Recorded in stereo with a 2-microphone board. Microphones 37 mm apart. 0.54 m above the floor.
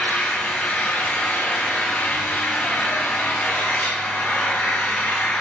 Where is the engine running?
60° left (ahead or behind), 4 m.